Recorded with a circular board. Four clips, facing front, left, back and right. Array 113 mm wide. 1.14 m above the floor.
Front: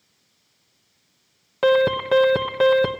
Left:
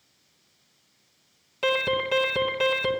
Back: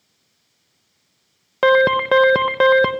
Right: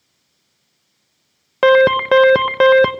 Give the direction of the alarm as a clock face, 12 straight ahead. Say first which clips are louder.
Right 14 dB, back 3 dB; 4 o'clock.